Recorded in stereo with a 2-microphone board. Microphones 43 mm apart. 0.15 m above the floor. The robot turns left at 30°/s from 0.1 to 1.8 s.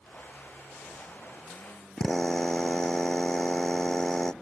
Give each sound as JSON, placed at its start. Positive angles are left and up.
{"t": 2.0, "sound": "a drill", "side_deg": 10}